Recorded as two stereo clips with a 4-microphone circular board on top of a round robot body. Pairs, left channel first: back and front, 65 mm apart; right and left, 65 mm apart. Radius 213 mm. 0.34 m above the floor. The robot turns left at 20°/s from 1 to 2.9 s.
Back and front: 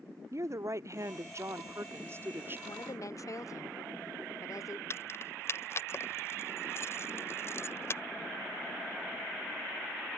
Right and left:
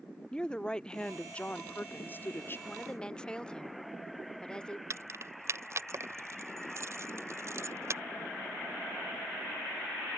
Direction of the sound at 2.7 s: 160° right.